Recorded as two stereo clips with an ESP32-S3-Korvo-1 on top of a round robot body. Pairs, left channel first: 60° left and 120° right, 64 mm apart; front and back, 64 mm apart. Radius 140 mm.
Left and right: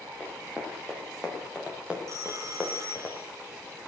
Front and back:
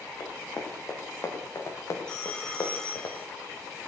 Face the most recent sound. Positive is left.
turn(degrees=-80)